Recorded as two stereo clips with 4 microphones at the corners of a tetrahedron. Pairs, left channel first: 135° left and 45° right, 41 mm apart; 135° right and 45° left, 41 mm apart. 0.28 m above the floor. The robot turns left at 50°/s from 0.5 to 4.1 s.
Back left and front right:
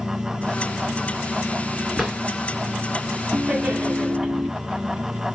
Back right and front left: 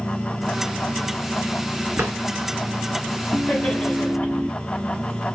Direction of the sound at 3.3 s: 75° right.